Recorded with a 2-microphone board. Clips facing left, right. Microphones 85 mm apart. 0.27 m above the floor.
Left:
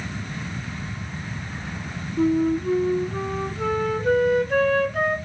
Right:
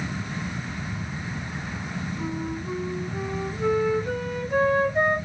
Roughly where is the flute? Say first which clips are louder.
Left 15 dB; left.